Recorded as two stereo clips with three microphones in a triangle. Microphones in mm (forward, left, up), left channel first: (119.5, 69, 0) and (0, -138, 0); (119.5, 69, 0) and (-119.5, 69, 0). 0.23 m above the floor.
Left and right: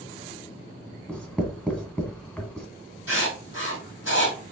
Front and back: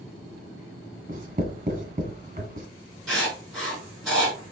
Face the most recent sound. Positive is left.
turn(degrees=90)